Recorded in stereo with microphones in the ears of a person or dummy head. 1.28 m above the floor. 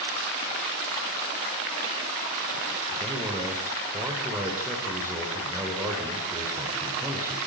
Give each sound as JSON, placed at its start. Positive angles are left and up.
{"t": 2.9, "sound": "a man speaking", "side_deg": -15, "distance_m": 4.5}